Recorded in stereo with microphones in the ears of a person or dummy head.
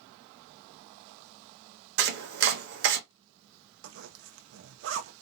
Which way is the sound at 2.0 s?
65° right (ahead or behind).